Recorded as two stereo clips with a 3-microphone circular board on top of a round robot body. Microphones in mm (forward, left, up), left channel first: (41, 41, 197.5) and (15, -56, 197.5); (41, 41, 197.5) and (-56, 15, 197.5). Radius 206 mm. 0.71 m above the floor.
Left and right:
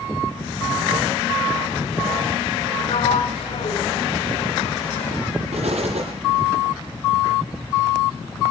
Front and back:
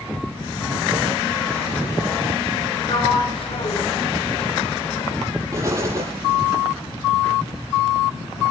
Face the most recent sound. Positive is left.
turn(degrees=-100)